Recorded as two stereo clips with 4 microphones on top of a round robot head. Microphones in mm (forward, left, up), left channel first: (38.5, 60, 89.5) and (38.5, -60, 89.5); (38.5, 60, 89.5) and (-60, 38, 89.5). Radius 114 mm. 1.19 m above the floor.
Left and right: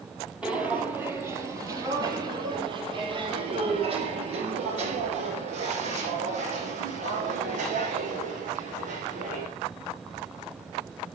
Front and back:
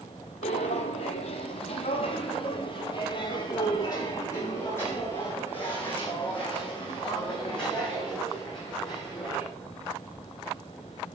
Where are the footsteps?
10° right, 2 m; by 9.5 s 75° right, 5.5 m.